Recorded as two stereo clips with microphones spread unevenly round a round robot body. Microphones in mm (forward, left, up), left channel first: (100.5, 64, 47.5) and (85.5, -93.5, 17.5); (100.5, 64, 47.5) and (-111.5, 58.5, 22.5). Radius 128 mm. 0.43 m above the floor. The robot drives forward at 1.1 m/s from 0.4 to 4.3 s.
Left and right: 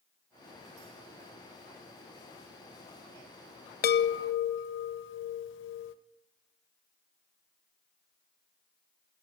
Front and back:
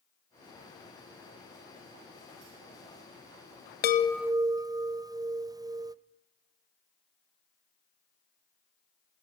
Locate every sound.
3.8 s a chime: 50° left, 0.6 m; by 6.0 s 105° left, 0.5 m